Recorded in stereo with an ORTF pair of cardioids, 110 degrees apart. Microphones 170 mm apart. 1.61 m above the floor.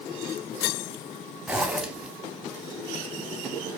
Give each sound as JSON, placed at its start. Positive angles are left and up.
{"t": 1.5, "sound": "a zipper", "azimuth_deg": -5, "distance_m": 0.7}